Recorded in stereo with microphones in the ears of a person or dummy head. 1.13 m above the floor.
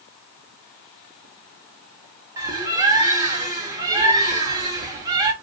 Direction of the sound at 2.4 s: 15° right (ahead or behind).